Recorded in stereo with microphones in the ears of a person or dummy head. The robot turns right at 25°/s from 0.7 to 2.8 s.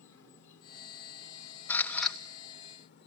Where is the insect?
75° left, 1.3 m; by 3.1 s 125° left, 1.3 m.